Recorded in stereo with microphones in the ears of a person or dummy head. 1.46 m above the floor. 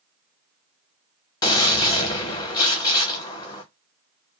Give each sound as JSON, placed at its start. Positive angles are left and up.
{"t": 1.4, "sound": "a gunshot", "side_deg": 20, "distance_m": 0.6}